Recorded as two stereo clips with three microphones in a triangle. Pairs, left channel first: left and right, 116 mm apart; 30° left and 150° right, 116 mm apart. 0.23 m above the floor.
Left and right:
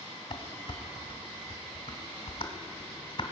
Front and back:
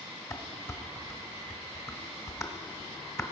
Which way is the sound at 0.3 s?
85° left.